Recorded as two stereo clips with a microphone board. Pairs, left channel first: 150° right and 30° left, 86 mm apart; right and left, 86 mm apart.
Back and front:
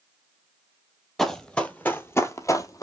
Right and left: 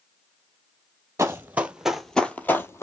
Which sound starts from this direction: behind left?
Running footsteps, at 1.2 s.